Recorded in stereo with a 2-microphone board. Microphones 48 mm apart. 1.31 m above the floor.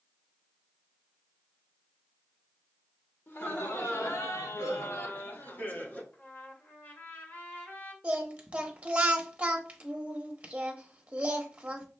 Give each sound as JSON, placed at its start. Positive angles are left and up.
{"t": 3.3, "sound": "laughter", "side_deg": 60, "distance_m": 1.2}
{"t": 6.1, "sound": "a trumpet", "side_deg": 40, "distance_m": 1.2}
{"t": 8.0, "sound": "singing", "side_deg": -25, "distance_m": 0.9}